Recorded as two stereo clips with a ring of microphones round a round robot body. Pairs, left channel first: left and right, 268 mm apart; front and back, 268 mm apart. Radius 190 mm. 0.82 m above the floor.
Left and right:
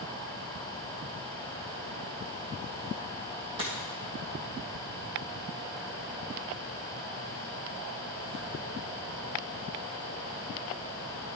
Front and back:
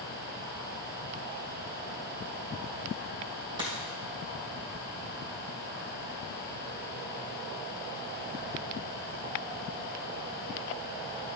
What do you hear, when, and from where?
3.6 s a dropped coin: 140° right, 2 m